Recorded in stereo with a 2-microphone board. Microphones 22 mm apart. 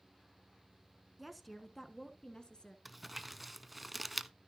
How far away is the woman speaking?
About 1.3 m.